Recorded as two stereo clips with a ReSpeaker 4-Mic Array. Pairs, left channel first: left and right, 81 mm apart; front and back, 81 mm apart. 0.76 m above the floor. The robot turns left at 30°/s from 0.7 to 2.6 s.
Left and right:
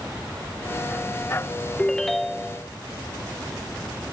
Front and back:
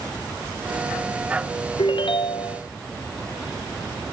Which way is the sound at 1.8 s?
15° left.